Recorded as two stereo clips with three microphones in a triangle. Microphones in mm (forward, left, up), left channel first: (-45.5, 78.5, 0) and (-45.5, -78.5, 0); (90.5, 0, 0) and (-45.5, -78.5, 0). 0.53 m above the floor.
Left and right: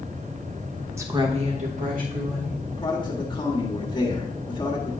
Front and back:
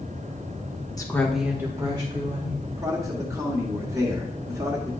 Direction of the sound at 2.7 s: 145° left.